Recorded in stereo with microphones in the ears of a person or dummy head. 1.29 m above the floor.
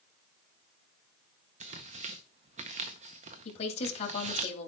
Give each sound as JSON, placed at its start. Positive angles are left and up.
{"t": 1.6, "sound": "tearing paper", "side_deg": -35, "distance_m": 0.6}
{"t": 3.5, "sound": "a woman speaking", "side_deg": 40, "distance_m": 2.5}